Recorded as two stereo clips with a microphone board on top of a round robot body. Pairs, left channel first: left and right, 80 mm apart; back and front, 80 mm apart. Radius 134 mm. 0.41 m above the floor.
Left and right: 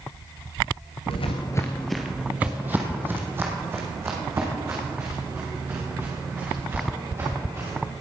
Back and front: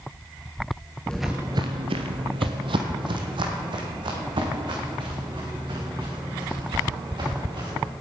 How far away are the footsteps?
About 0.5 m.